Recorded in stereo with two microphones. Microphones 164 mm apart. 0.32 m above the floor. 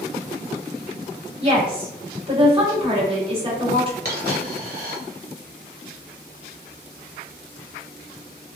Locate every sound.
1.4 s a woman speaking: 35° right (ahead or behind), 1.3 m
4.0 s a dropped coin: 65° right (ahead or behind), 1.1 m